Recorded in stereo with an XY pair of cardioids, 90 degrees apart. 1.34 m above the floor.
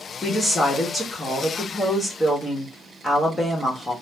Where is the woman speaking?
15° left, 1.1 m.